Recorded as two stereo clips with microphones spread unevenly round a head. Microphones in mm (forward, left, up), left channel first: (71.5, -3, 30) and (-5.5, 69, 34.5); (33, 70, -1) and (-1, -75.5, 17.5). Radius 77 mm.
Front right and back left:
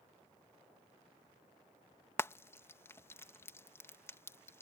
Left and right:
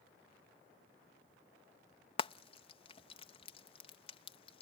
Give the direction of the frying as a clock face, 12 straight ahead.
11 o'clock.